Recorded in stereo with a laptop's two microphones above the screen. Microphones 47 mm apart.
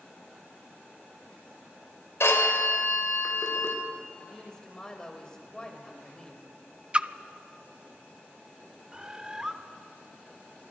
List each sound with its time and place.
2.2 s a phone ringing: 75° left (ahead or behind), 3 m
4.2 s a woman speaking: 20° left (ahead or behind), 3.5 m
6.9 s a splash: 25° right (ahead or behind), 0.6 m
8.9 s a bird: 20° right (ahead or behind), 1.0 m